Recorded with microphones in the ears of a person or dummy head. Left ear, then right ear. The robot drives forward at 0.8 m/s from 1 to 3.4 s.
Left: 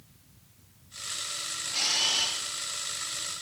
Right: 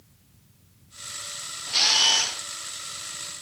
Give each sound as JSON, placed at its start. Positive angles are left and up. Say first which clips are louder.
{"t": 1.7, "sound": "a camera shutter", "louder": "right 7 dB", "side_deg": -55, "distance_m": 0.5}